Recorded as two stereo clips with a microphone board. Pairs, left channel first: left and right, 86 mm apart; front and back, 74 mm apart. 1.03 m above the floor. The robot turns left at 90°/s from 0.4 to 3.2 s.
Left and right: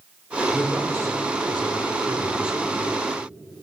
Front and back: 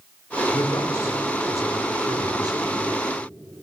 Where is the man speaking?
5° left, 4 m; by 2.8 s 160° left, 4 m.